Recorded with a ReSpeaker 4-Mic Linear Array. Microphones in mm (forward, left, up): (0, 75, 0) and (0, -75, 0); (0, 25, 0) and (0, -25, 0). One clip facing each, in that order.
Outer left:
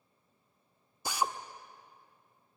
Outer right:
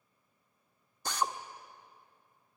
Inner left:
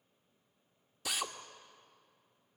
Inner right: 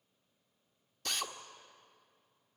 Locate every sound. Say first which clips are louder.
1.1 s a drill: outer left 1 dB, inner left 1 dB; 10° left (ahead or behind), 1.0 m